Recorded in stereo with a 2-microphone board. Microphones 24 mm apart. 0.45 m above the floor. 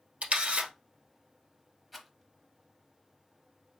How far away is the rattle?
About 1.0 m.